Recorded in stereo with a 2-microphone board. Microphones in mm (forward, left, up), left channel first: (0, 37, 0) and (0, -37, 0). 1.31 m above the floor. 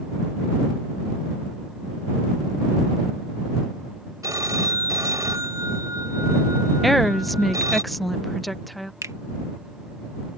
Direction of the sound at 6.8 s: Centre (ahead or behind).